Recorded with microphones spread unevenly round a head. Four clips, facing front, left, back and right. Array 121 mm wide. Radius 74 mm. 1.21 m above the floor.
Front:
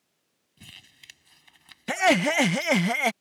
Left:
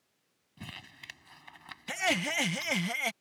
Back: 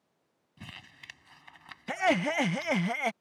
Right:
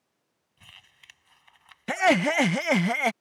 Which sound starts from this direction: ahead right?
Laughter, at 1.9 s.